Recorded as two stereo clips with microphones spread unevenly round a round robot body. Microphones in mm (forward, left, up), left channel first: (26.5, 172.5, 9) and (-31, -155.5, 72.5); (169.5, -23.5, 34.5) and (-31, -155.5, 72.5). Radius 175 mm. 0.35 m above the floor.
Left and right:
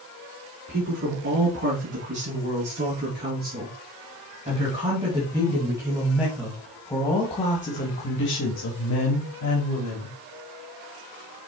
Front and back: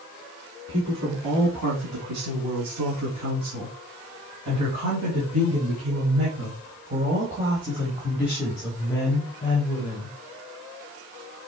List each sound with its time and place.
0.7 s a woman speaking: 155° right, 5 m; by 10.2 s 90° left, 2.5 m